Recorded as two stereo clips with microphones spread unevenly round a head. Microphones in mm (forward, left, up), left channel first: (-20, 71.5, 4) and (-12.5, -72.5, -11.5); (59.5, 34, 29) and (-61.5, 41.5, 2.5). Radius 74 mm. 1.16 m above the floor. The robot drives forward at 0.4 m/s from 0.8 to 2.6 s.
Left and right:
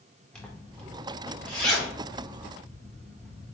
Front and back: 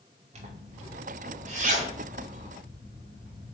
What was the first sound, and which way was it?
A zipper, straight behind.